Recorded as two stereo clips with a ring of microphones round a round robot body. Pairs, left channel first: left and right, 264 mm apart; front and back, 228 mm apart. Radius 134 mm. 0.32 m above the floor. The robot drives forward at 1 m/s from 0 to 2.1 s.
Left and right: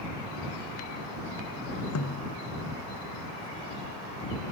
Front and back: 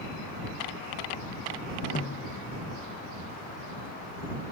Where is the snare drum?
55° left.